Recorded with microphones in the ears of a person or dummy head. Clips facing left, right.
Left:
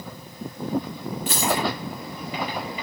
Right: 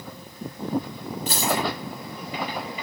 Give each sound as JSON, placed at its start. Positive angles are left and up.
{"t": 1.3, "sound": "a dropped coin", "side_deg": -30, "distance_m": 7.0}